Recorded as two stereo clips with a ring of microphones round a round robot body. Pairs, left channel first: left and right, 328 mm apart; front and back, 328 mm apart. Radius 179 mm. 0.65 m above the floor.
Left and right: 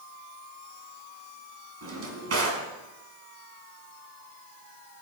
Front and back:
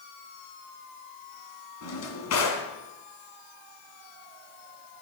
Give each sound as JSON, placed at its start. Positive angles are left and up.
{"t": 1.8, "sound": "a drawer", "azimuth_deg": -45, "distance_m": 2.5}